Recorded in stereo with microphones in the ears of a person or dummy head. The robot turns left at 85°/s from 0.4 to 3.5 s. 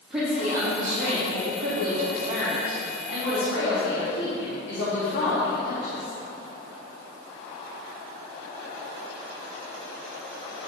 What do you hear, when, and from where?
0.1 s a woman speaking: 5° right, 3 m; by 6.1 s 90° left, 3 m